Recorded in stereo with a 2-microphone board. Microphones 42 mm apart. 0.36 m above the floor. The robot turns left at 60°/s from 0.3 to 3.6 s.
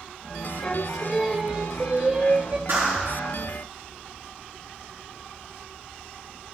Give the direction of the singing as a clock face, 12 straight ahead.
11 o'clock.